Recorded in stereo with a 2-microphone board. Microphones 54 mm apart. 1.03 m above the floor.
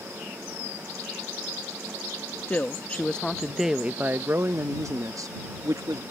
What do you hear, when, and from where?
2.5 s a woman speaking: 30° left (ahead or behind); by 6.0 s 85° right